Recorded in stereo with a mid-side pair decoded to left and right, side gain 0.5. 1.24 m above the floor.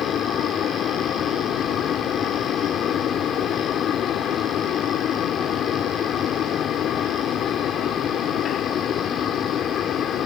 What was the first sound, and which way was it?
A fan, 60° left.